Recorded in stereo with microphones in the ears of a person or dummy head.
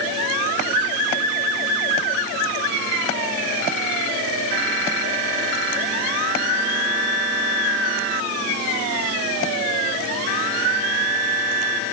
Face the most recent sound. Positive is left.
No sound to turn to.